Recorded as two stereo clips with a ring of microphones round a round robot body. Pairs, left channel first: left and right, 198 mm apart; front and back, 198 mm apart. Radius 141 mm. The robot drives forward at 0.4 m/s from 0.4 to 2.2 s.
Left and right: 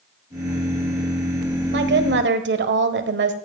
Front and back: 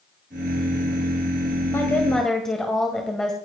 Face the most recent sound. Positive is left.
turn(degrees=-90)